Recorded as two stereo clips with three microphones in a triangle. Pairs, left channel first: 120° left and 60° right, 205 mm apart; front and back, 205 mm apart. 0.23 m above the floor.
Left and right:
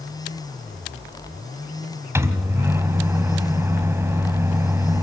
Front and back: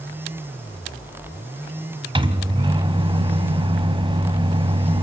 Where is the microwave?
130° right, 1.2 m.